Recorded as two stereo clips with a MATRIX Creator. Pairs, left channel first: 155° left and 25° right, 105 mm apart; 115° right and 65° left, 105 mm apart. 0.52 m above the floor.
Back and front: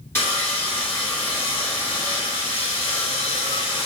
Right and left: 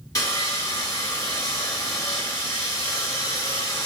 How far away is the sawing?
About 1.4 m.